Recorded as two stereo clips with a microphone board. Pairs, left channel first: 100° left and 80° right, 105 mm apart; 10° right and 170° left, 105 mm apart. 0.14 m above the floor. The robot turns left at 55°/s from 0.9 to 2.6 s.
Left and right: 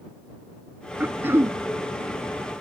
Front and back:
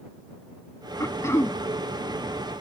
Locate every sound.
1.0 s throat clearing: 25° right; by 1.6 s 55° right